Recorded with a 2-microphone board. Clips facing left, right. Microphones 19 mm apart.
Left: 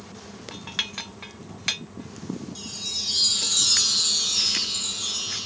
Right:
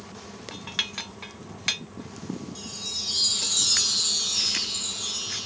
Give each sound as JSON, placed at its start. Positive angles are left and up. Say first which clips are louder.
{"t": 2.5, "sound": "a chime", "louder": "left 3 dB", "side_deg": 10}